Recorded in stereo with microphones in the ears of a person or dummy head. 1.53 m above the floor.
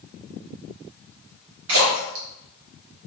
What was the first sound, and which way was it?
A splash, 75° right (ahead or behind).